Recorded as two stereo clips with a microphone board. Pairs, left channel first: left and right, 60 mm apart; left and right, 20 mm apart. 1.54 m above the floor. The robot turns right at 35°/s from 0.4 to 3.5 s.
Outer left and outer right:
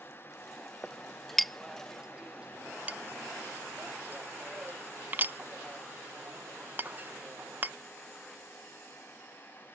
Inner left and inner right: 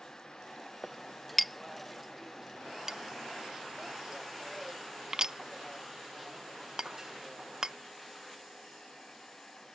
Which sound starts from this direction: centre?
A clink, at 0.8 s.